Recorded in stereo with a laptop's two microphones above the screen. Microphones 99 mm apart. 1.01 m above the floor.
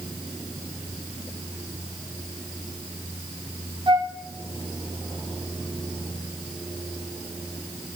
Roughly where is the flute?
Right.